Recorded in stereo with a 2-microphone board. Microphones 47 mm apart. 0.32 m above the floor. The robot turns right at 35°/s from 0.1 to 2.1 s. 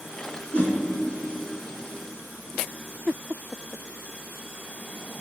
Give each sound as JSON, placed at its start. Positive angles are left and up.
{"t": 0.5, "sound": "a whoosh", "side_deg": 30, "distance_m": 1.3}